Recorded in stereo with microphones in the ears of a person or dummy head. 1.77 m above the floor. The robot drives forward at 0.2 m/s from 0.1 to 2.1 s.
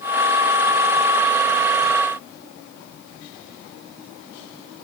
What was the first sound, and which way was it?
Only background noise.